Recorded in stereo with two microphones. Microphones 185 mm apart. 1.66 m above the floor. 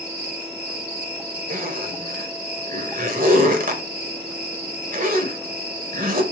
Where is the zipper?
50° right (ahead or behind), 1.7 m.